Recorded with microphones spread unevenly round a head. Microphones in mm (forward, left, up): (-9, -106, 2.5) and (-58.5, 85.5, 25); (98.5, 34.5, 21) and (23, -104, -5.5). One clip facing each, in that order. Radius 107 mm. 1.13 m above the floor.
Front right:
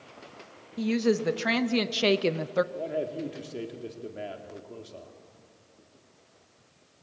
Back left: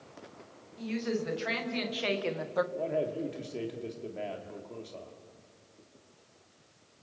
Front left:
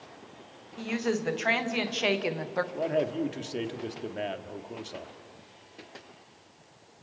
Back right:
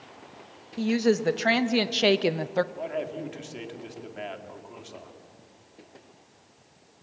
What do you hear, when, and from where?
0.8 s a woman speaking: 75° right, 2.5 m; by 2.6 s 95° right, 0.8 m
2.7 s a man speaking: 10° left, 2 m